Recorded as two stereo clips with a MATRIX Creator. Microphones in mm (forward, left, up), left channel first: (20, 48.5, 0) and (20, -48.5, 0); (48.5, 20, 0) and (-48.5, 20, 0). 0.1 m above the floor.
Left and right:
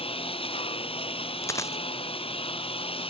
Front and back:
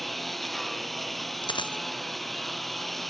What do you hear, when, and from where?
0.0 s a lawn mower: 90° left
1.4 s a dropped coin: 35° left